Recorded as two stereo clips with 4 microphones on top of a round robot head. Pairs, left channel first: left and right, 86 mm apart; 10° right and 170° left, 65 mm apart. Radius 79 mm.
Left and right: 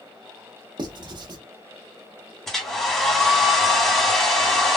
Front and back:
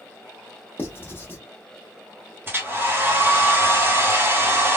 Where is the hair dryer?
170° left, 1.4 m.